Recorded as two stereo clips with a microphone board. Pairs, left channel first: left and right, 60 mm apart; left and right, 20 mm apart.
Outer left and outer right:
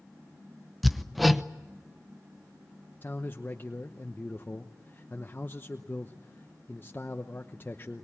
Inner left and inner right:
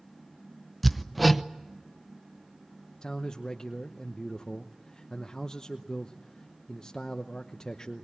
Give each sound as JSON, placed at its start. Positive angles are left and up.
{"t": 0.8, "sound": "hammering", "side_deg": 0, "distance_m": 0.8}
{"t": 3.0, "sound": "a man speaking", "side_deg": 35, "distance_m": 0.9}